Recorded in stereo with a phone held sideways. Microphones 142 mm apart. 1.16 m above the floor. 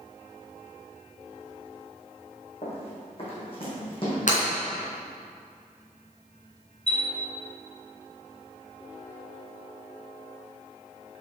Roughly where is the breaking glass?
Left.